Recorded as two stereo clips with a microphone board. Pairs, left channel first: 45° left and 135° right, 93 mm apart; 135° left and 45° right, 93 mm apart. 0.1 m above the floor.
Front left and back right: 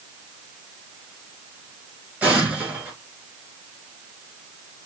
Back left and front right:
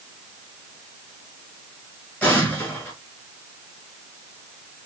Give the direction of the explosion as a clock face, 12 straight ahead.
6 o'clock.